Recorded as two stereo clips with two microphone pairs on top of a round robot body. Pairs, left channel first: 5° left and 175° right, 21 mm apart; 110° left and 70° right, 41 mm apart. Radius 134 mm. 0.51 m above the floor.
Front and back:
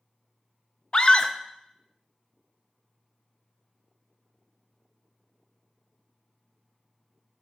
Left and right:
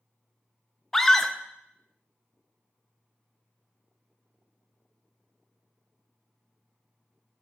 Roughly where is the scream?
Ahead.